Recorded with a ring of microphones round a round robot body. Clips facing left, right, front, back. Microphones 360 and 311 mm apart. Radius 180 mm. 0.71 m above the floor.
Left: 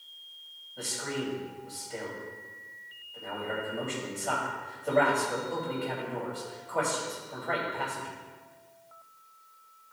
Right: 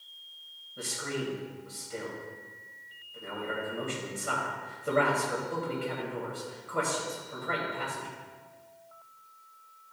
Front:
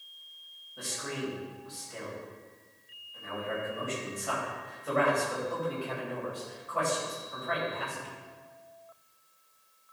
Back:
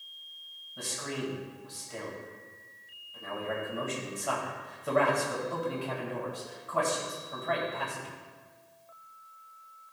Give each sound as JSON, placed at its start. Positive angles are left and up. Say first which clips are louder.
{"t": 0.8, "sound": "a man speaking", "louder": "even, back 1 dB", "azimuth_deg": -165, "distance_m": 3.5}